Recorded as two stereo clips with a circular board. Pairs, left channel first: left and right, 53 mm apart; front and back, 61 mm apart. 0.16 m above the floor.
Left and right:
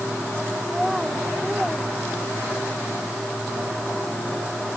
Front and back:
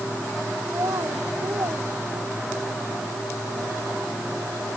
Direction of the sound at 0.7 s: 175° right.